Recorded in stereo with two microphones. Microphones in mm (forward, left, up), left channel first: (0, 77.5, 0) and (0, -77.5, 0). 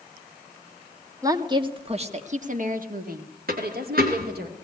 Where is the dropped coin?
75° right (ahead or behind), 3.5 m.